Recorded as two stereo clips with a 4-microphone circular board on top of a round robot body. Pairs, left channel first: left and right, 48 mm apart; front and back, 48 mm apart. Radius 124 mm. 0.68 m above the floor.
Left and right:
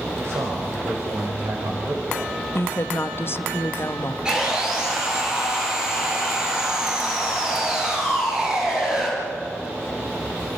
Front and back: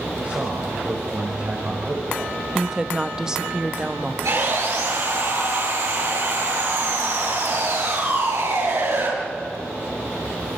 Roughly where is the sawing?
Behind.